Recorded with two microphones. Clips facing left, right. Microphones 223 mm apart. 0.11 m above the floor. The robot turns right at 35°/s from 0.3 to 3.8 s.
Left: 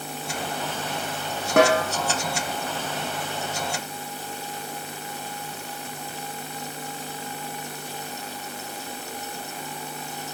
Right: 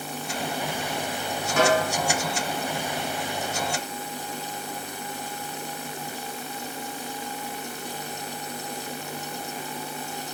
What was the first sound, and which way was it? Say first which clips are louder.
A snare drum: left 3 dB; 70° left (ahead or behind).